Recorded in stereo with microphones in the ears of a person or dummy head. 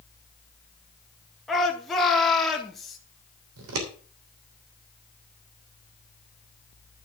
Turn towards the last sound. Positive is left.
turn(degrees=-65)  # may be behind; listen again after turning